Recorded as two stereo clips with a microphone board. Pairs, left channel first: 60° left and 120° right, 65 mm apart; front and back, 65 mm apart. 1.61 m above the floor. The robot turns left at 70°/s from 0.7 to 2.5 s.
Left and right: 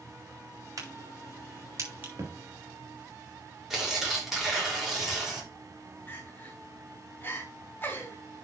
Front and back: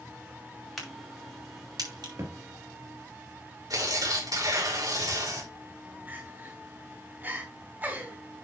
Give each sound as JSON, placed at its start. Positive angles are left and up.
{"t": 0.8, "sound": "a crack", "azimuth_deg": -85, "distance_m": 6.0}
{"t": 2.2, "sound": "a thud", "azimuth_deg": -150, "distance_m": 4.0}
{"t": 3.7, "sound": "tearing paper", "azimuth_deg": 155, "distance_m": 4.5}
{"t": 6.1, "sound": "crying", "azimuth_deg": 120, "distance_m": 3.0}